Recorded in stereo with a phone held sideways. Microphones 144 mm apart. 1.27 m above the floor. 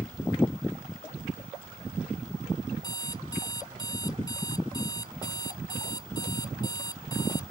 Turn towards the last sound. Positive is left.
turn(degrees=25)  # may be behind; listen again after turning